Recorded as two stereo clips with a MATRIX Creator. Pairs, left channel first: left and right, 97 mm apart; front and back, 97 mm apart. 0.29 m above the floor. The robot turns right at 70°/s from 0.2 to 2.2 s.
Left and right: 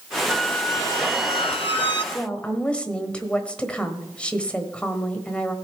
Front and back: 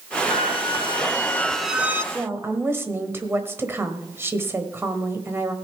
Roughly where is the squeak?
Ahead.